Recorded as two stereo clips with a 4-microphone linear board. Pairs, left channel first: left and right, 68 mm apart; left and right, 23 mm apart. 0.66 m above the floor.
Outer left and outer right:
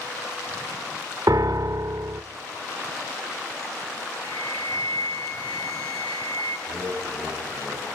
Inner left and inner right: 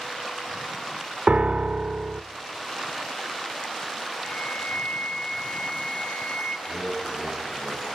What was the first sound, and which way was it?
A piano, 60° right (ahead or behind).